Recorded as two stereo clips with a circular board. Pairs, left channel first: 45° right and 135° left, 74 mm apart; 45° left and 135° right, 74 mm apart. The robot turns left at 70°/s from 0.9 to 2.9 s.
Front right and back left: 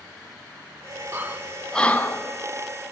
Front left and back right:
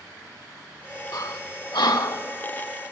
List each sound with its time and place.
1.1 s breathing: 80° left, 0.6 m; by 2.2 s straight ahead, 0.6 m